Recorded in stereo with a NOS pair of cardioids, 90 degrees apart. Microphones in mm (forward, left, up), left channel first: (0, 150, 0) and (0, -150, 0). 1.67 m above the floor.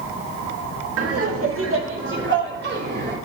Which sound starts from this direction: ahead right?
Laughter, at 1.0 s.